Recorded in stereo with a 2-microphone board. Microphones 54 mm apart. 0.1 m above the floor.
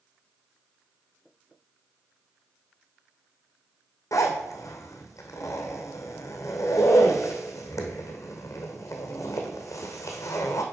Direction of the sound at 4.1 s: 75° left (ahead or behind).